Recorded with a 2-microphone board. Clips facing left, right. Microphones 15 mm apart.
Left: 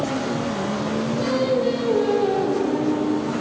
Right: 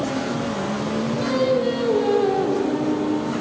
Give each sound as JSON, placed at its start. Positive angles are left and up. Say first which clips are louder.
{"t": 1.2, "sound": "singing", "louder": "right 1 dB", "side_deg": -5, "distance_m": 1.0}